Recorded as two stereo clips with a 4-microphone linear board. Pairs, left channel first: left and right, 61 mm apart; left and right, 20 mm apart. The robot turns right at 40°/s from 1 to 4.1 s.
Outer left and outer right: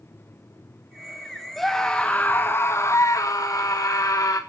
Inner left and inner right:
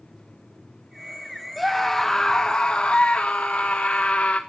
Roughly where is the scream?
Ahead.